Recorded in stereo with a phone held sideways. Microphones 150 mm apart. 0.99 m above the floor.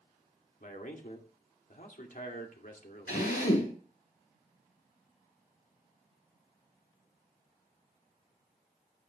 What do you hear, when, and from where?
0.6 s a man speaking: 60° left (ahead or behind), 2.5 m
3.1 s a drill: 80° left, 8.5 m